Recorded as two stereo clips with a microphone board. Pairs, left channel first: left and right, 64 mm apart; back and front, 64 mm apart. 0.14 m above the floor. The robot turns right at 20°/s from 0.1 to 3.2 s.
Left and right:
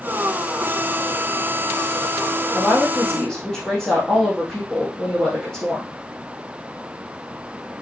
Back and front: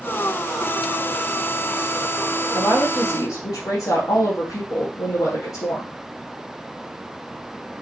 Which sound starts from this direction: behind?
A woman speaking, at 2.5 s.